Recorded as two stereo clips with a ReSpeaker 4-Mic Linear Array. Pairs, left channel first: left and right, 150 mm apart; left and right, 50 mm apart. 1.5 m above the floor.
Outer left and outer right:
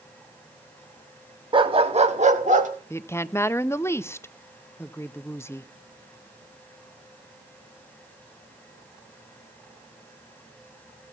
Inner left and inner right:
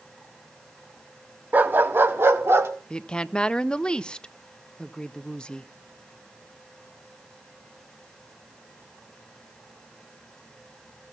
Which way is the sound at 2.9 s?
15° left (ahead or behind).